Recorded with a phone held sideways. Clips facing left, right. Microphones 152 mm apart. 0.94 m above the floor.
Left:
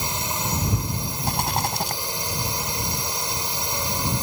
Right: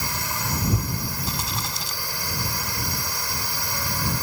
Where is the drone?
20° left (ahead or behind).